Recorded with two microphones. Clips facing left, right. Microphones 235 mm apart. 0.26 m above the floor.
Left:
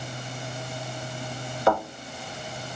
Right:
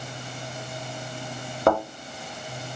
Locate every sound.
1.7 s a thud: 50° right (ahead or behind), 2 m